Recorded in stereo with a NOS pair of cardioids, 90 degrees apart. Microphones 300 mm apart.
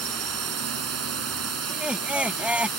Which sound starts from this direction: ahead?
Laughter, at 1.7 s.